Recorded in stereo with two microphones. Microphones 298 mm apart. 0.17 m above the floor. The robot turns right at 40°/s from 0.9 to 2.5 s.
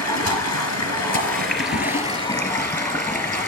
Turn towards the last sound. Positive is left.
turn(degrees=170)